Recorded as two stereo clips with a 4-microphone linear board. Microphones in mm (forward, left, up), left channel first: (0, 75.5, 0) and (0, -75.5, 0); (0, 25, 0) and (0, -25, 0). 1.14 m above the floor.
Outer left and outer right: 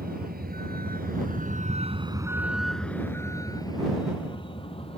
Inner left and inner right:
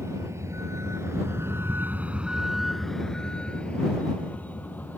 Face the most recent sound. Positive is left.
turn(degrees=35)  # may be behind; listen again after turning